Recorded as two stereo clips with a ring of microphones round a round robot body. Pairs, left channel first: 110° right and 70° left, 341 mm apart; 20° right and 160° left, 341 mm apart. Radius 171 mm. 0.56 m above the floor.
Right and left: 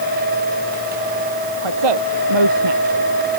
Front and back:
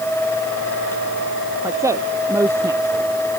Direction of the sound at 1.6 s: 75° left.